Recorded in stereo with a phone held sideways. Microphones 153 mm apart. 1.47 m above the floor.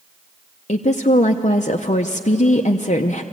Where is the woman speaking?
50° left (ahead or behind), 0.7 m.